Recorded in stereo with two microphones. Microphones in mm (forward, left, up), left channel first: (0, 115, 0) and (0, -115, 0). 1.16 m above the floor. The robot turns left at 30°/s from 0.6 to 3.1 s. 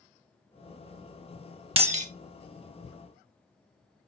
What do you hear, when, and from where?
1.8 s breaking glass: 25° right (ahead or behind), 0.9 m; by 2.1 s 35° right (ahead or behind), 0.9 m